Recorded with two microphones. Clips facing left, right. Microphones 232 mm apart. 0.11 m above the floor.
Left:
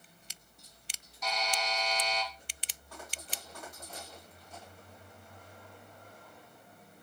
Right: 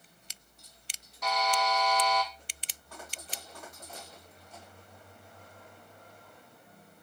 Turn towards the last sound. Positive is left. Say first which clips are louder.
# right 6 dB
turn(degrees=-60)  # may be behind; listen again after turning